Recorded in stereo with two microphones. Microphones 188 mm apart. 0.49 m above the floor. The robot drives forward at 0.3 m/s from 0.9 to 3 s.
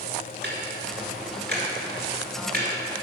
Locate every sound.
0.4 s ticking: 65° right (ahead or behind), 2 m; by 3.0 s 50° right (ahead or behind), 2.5 m